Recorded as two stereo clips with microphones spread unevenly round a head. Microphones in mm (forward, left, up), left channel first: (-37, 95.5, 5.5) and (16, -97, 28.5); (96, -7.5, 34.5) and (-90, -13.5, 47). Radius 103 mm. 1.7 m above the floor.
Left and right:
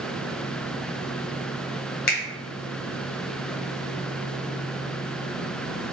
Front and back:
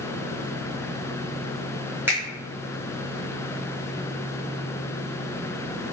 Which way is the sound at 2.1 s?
115° left.